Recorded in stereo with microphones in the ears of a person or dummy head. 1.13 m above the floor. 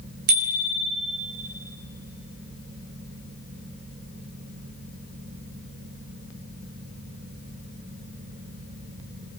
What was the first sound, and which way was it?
A bicycle bell, 55° right (ahead or behind).